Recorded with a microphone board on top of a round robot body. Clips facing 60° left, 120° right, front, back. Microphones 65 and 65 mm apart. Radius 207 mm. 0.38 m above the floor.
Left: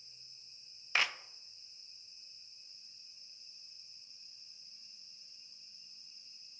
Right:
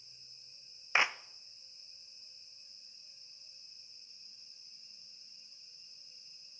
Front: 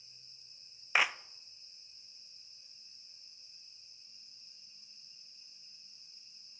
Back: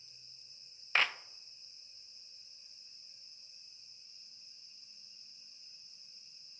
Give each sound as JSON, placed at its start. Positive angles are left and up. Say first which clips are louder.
{"t": 0.9, "sound": "a clap", "louder": "right 3 dB, front 2 dB", "azimuth_deg": -75, "distance_m": 0.6}